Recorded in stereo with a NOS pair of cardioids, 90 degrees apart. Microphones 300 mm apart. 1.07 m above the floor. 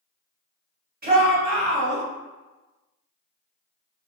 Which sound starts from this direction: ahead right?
A shout, at 1.0 s.